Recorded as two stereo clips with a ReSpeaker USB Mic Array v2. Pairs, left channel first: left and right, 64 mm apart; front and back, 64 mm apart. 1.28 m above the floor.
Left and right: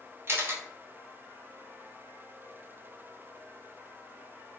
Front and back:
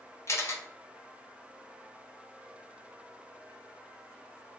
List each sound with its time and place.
0.3 s a camera shutter: 40° right, 0.5 m